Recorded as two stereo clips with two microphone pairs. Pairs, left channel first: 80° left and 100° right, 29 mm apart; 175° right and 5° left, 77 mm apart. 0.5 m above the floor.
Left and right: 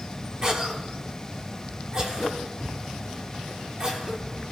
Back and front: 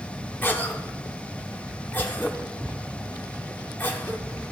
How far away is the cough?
About 1.3 m.